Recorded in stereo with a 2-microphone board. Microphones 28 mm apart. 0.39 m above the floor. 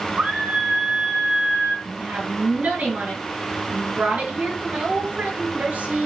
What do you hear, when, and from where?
0.2 s a scream: 60° right (ahead or behind), 3 m
1.9 s a woman speaking: 80° right, 7 m